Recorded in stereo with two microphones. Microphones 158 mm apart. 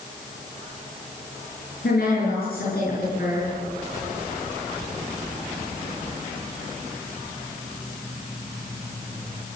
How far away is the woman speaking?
About 9 m.